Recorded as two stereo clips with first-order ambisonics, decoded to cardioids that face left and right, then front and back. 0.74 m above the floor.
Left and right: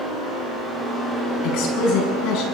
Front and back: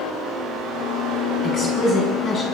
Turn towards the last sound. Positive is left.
turn(degrees=60)